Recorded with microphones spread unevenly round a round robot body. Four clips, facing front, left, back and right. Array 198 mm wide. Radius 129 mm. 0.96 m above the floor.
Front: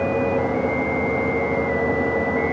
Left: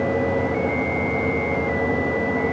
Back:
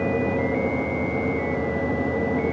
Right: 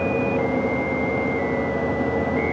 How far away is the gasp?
I don't hear a gasp.